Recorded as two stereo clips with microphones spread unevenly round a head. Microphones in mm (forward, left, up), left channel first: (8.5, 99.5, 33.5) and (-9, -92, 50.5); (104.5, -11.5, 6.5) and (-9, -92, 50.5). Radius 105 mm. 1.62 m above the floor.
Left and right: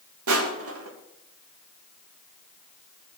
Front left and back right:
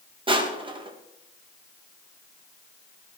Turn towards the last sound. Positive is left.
turn(degrees=-90)